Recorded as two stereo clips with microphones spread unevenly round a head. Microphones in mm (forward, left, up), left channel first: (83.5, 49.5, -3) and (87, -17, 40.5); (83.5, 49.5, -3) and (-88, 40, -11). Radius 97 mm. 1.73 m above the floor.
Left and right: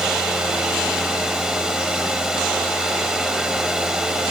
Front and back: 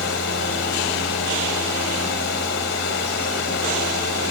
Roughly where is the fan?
Ahead.